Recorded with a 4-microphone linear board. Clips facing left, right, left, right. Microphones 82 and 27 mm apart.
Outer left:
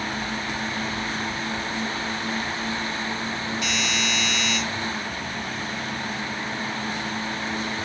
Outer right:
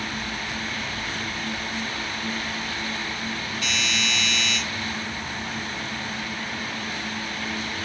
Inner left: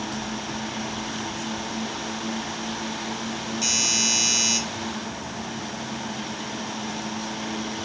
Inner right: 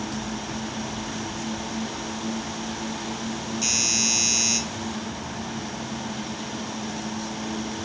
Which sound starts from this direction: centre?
A doorbell, at 3.6 s.